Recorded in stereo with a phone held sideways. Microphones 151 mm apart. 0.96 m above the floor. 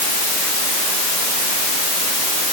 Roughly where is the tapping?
No tapping in this recording.